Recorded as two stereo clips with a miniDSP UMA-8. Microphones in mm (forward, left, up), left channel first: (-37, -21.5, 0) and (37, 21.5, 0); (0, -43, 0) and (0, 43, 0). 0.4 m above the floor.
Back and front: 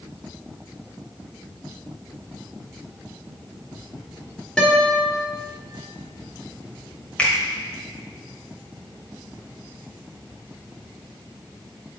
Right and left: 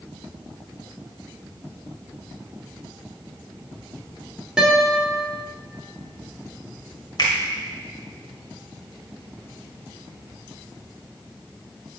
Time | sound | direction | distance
4.6 | a guitar | 150° left | 1.4 m
7.2 | a finger snap | 80° right | 1.4 m